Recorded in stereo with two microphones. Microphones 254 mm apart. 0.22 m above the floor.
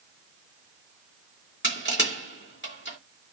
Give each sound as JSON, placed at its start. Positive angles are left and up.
{"t": 1.6, "sound": "crushing", "side_deg": 50, "distance_m": 2.5}